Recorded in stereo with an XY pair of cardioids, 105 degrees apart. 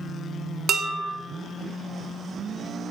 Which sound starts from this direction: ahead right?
Dishes clattering, at 0.7 s.